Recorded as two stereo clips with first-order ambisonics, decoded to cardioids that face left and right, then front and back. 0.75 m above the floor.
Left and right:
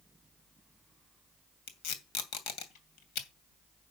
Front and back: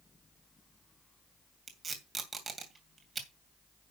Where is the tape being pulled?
105° left, 2.5 m.